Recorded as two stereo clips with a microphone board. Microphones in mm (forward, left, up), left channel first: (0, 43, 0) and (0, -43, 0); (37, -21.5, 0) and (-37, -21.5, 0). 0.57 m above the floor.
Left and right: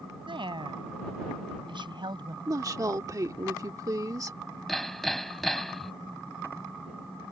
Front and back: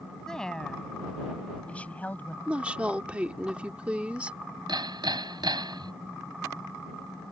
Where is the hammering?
Straight behind.